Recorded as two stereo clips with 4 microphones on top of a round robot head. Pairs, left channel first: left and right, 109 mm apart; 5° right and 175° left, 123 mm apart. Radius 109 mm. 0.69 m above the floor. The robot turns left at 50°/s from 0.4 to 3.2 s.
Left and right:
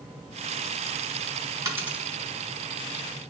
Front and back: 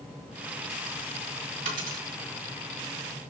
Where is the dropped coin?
150° right, 4.5 m; by 2.0 s 170° right, 4.5 m.